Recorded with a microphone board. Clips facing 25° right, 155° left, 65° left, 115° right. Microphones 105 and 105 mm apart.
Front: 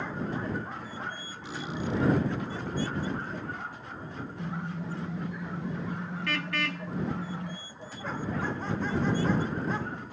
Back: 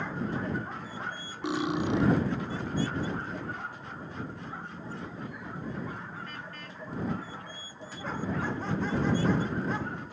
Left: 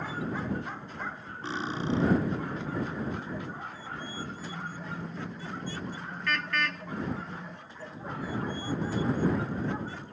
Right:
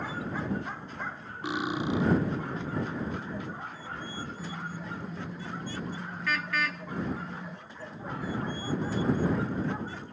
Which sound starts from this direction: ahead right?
A car horn, at 4.4 s.